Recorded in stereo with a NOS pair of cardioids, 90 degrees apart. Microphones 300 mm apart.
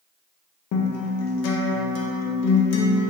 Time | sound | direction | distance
0.7 | a guitar | 65° left | 0.5 m